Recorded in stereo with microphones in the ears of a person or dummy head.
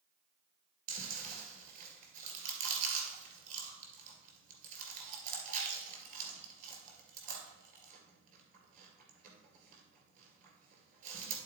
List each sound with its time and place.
0.9 s chewing: 35° right (ahead or behind), 2.5 m